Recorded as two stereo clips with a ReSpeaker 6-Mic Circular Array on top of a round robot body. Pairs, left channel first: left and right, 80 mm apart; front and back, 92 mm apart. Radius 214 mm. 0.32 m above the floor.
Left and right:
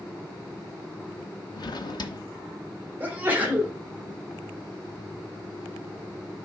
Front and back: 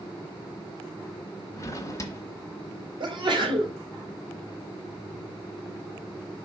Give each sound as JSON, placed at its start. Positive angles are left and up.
{"t": 1.6, "sound": "a drawer", "azimuth_deg": 60, "distance_m": 0.9}
{"t": 3.0, "sound": "a sneeze", "azimuth_deg": -160, "distance_m": 2.5}